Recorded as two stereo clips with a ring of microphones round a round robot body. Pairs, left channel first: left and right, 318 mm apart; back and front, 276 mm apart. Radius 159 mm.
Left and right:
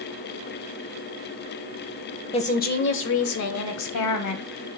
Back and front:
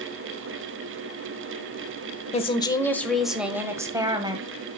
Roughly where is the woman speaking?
Behind left.